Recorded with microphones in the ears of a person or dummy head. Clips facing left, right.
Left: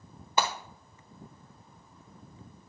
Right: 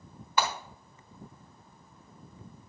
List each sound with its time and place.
0.4 s breaking glass: 25° left (ahead or behind), 1.1 m